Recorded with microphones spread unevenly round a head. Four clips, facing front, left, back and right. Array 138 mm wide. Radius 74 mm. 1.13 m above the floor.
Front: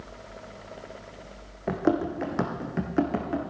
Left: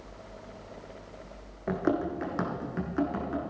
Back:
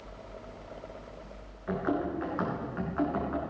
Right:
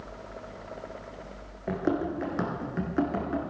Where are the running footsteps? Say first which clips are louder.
Even, front 5 dB; 40° left, 2.5 m; by 3.4 s 5° left, 3 m.